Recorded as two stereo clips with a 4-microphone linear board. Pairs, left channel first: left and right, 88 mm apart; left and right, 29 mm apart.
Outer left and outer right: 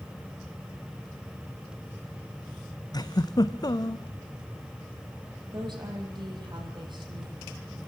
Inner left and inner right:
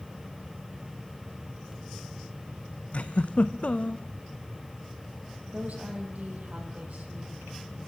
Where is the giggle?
50° left (ahead or behind), 1.0 m.